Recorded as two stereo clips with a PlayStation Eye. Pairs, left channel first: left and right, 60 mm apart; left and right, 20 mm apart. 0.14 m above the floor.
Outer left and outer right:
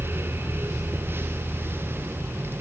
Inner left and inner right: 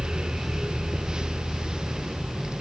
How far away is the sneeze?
No sneeze in this recording.